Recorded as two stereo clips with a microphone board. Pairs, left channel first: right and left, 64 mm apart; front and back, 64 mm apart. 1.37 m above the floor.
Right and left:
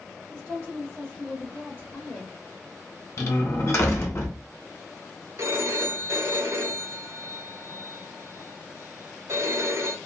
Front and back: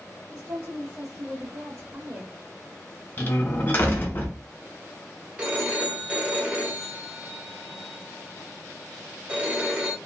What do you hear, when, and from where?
0.3 s a woman speaking: 170° left, 1.3 m; by 2.3 s 140° right, 1.7 m
3.2 s a door slam: 55° right, 0.9 m
5.4 s a phone ringing: 115° left, 0.9 m